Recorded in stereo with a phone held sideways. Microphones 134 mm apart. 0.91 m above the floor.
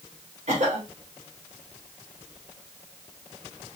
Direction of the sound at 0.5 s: 60° right (ahead or behind).